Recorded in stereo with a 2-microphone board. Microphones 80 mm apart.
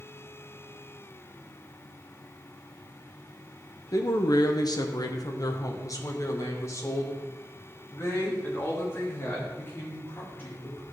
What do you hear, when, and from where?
3.9 s a man speaking: 45° left (ahead or behind), 0.8 m; by 10.8 s 25° left (ahead or behind), 4 m